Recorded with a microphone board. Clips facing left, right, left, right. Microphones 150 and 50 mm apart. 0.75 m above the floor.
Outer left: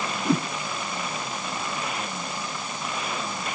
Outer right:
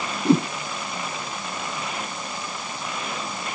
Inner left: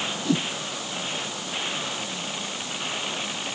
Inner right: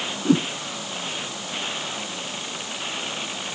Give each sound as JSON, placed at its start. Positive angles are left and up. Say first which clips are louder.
{"t": 0.2, "sound": "a whoosh", "louder": "outer right 6 dB, inner right 6 dB", "side_deg": -30}